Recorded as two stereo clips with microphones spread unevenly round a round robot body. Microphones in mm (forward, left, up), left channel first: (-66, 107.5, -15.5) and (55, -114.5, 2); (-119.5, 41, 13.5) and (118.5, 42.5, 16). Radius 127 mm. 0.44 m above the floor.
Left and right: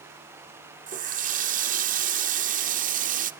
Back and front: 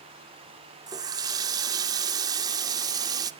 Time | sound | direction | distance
0.9 | a running tap | 55° right | 0.6 m